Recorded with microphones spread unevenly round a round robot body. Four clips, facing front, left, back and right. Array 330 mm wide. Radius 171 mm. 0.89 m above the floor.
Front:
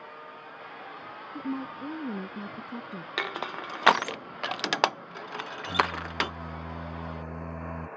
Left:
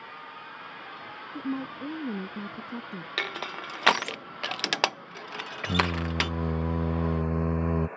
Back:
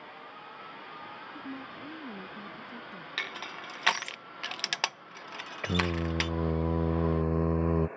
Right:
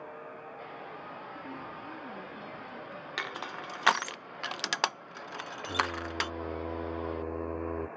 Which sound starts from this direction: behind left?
Singing, at 5.6 s.